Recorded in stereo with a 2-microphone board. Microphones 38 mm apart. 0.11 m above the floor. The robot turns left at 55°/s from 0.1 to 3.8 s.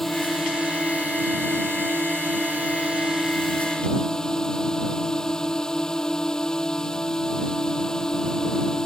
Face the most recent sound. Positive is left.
turn(degrees=160)